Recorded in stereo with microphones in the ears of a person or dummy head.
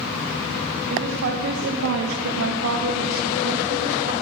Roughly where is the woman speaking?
Right.